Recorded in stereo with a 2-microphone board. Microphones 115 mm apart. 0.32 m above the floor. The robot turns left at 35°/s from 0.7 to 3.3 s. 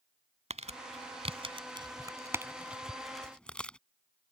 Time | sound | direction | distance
0.5 | crumpling | 70° right (ahead or behind) | ?